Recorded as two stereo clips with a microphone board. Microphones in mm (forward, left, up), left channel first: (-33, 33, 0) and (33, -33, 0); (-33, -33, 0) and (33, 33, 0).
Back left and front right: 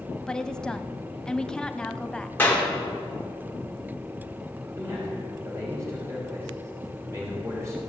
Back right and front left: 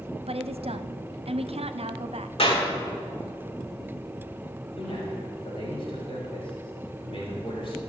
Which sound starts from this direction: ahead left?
A woman speaking, at 0.3 s.